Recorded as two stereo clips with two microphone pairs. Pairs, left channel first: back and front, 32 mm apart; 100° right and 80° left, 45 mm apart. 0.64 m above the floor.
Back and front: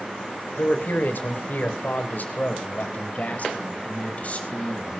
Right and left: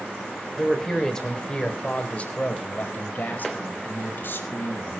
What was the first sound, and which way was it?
A man speaking, 175° left.